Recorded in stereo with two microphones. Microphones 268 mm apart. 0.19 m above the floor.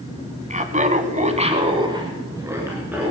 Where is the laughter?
25° right (ahead or behind), 1.4 m; by 3.1 s 5° right (ahead or behind), 2.5 m.